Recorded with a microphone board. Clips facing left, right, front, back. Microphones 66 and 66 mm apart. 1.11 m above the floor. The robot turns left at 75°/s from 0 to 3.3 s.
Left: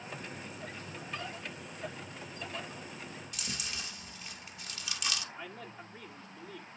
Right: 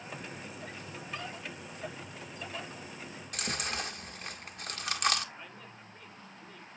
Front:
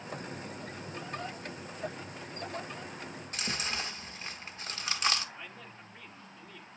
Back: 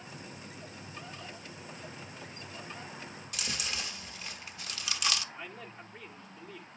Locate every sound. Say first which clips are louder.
3.3 s chewing: right 9 dB, front 2 dB; 55° right, 1.2 m
5.3 s a man speaking: left 4 dB, back 2 dB; 95° left, 2.5 m